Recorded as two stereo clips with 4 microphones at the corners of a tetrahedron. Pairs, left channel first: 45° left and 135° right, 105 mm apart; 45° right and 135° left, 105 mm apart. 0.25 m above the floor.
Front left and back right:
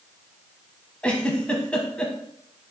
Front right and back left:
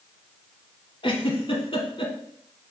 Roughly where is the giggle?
Ahead right.